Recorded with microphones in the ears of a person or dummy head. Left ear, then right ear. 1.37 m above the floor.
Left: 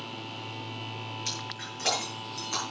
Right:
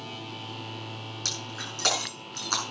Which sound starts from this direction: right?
Breaking glass, at 1.2 s.